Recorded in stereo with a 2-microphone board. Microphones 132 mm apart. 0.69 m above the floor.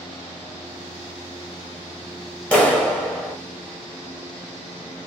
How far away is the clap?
About 0.8 m.